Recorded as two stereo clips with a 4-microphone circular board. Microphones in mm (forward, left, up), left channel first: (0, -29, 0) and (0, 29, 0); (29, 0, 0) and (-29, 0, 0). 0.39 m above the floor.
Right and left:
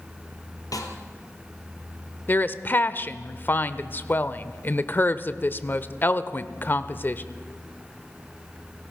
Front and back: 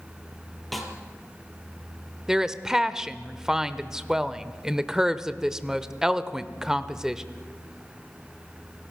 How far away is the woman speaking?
About 0.9 m.